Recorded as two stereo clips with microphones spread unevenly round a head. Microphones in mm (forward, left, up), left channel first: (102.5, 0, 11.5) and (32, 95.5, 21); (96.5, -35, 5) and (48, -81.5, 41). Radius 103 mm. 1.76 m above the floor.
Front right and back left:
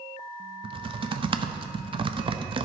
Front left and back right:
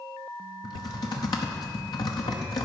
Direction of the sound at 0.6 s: 80° left.